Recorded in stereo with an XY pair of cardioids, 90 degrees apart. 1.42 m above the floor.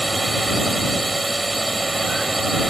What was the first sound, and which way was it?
A drone, 15° right.